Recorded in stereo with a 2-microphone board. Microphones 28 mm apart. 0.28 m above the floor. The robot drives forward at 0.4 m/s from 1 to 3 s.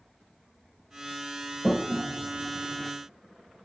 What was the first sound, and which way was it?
A toilet flushing, 5° left (ahead or behind).